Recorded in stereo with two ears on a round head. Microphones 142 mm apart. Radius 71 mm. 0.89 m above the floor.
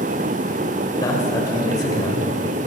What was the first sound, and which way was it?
A man speaking, 25° left (ahead or behind).